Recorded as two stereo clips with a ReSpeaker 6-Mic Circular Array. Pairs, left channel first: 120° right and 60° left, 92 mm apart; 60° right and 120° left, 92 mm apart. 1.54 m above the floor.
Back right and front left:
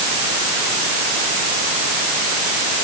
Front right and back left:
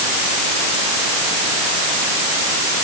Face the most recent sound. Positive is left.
No sound to turn to.